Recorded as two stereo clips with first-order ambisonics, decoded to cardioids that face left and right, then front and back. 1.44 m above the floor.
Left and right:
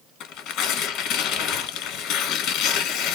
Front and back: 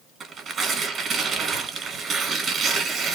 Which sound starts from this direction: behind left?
Tearing paper, at 0.2 s.